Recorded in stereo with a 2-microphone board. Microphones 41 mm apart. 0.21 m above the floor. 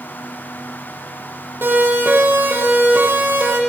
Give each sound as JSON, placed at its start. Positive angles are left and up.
{"t": 1.6, "sound": "a siren", "side_deg": -60, "distance_m": 9.5}